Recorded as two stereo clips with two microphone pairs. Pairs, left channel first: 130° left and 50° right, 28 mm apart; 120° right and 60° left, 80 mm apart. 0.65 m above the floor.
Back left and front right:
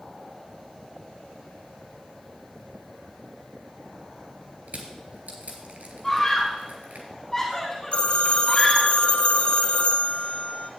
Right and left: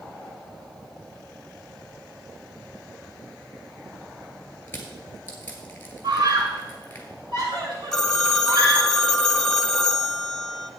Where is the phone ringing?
160° left, 1.0 m.